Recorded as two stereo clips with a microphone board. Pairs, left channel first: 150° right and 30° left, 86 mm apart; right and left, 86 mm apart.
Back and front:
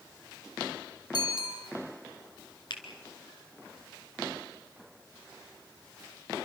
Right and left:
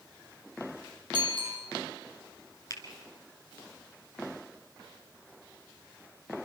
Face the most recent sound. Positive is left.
turn(degrees=-135)